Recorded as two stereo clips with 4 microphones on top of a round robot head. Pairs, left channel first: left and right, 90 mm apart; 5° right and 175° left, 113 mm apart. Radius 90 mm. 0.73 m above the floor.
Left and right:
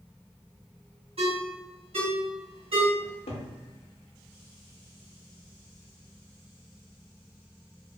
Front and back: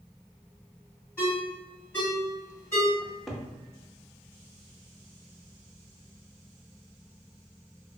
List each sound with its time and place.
1.2 s a ringtone: 75° right, 1.8 m
3.0 s a cupboard door: 85° left, 0.5 m